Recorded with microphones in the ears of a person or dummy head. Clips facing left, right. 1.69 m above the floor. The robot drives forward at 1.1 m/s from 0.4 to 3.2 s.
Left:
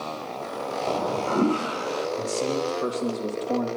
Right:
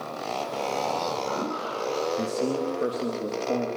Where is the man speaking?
10° right (ahead or behind), 2.5 m; by 3.7 s 5° right (ahead or behind), 3.5 m.